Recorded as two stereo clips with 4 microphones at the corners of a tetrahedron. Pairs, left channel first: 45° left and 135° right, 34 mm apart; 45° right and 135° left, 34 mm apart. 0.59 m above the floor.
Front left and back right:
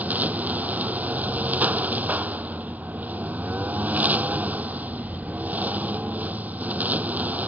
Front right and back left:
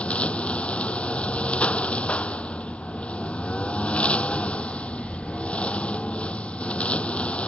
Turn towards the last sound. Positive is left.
turn(degrees=-100)